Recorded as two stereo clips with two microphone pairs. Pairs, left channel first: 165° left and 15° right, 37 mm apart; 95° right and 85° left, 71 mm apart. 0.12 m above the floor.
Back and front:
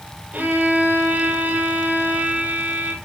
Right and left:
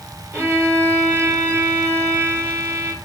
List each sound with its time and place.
0.3 s a violin: 30° left, 2.5 m